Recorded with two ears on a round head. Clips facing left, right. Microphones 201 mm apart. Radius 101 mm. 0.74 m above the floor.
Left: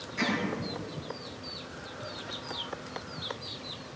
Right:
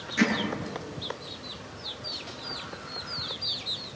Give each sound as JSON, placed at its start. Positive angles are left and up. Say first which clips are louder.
{"t": 0.2, "sound": "hammering", "louder": "right 7 dB", "side_deg": -70, "distance_m": 7.5}